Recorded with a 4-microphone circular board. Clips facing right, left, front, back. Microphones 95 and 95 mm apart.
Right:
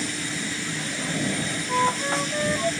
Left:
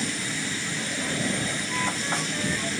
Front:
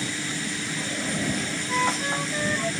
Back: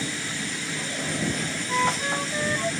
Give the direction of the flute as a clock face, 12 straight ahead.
3 o'clock.